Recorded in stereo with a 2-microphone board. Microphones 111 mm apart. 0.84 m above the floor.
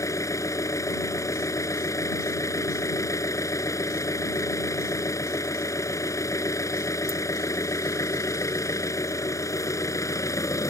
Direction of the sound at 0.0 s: 30° left (ahead or behind).